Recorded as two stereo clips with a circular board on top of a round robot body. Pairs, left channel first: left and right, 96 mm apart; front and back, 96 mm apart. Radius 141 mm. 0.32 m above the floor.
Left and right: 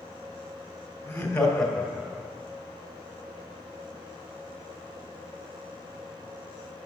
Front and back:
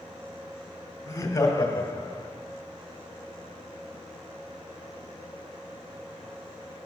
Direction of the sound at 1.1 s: 30° left.